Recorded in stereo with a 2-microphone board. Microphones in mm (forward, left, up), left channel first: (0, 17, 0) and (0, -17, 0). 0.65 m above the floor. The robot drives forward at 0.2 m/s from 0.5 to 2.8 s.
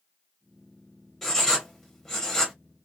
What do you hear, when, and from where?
1.2 s writing: 5° left (ahead or behind), 1.0 m